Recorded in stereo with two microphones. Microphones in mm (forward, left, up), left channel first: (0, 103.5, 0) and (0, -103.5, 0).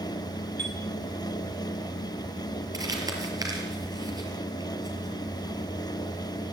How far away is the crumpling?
About 5 m.